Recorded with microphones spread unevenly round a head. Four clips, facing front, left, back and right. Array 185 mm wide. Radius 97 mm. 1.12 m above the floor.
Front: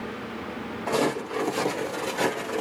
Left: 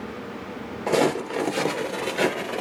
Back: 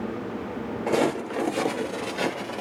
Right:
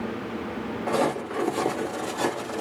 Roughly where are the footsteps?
Behind left.